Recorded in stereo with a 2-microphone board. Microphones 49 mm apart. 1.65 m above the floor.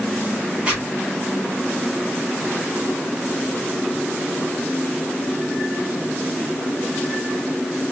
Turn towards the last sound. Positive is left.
turn(degrees=-25)  # may be behind; listen again after turning